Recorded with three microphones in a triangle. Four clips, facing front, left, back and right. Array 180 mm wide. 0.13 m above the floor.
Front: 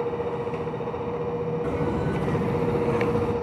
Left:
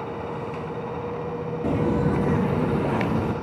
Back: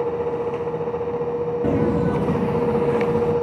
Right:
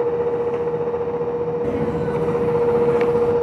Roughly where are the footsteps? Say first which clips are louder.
Right 2 dB, back 6 dB; behind.